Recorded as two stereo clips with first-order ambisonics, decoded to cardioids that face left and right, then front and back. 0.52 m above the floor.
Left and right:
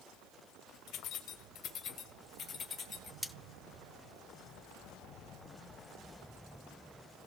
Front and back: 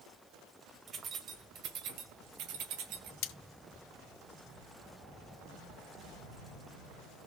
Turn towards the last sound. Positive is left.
turn(degrees=5)